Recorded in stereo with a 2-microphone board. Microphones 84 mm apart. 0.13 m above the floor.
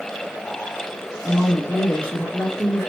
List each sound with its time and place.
1.2 s a woman speaking: 15° left (ahead or behind), 1.8 m